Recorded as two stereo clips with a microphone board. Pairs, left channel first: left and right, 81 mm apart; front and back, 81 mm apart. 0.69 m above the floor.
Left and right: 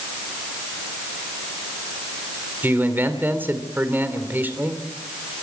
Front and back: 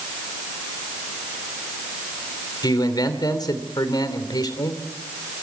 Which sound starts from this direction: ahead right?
A man speaking, at 2.6 s.